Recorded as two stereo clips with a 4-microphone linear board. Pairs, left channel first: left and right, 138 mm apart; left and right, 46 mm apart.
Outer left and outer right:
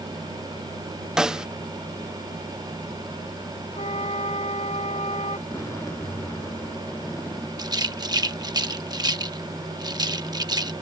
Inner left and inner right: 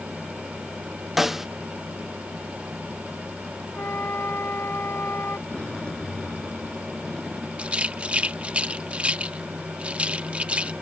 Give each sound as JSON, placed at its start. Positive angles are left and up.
{"t": 1.2, "sound": "a snare drum", "side_deg": -5}
{"t": 3.7, "sound": "a flute", "side_deg": 50}
{"t": 5.5, "sound": "a zipper", "side_deg": 20}
{"t": 7.6, "sound": "a rattle", "side_deg": -30}